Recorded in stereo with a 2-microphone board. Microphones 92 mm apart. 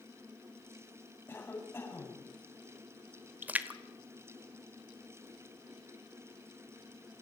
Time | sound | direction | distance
1.3 | a cough | 25° left (ahead or behind) | 7.5 m
3.4 | a splash | 20° right (ahead or behind) | 1.2 m